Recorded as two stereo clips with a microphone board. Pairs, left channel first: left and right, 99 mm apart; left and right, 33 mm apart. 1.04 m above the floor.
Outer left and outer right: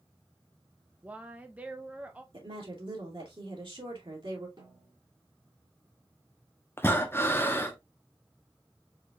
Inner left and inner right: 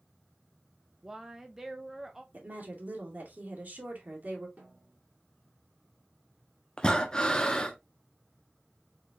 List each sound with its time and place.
1.0 s a woman speaking: 15° right (ahead or behind), 0.5 m
2.3 s a woman speaking: 65° right (ahead or behind), 2.5 m
4.6 s a snare drum: 55° right (ahead or behind), 3.5 m
6.8 s breathing: 25° left (ahead or behind), 0.8 m